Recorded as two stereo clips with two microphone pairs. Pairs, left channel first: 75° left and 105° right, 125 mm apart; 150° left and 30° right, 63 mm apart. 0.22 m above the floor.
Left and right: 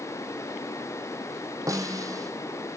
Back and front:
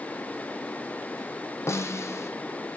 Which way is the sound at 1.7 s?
170° right.